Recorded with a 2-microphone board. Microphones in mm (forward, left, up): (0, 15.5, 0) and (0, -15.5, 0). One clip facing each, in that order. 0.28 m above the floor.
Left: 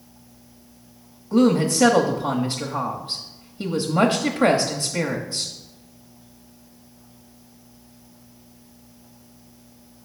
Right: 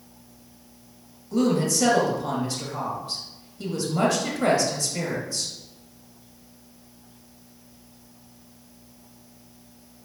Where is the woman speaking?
35° left (ahead or behind), 1.0 m.